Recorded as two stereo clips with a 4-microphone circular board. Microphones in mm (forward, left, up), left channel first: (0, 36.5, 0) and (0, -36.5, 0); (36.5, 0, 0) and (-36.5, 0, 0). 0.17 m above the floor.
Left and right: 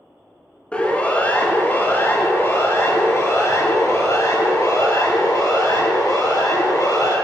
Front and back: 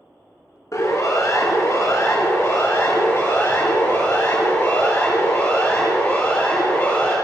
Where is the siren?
20° left, 2.5 m; by 7.1 s 70° left, 5.5 m.